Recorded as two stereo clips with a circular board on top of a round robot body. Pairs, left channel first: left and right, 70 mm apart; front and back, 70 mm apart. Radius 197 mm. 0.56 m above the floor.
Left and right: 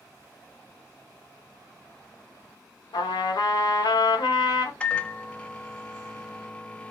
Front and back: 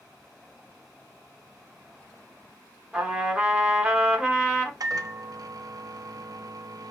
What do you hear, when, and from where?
2.9 s a trumpet: 100° left, 0.9 m
4.8 s a microwave: 165° left, 0.6 m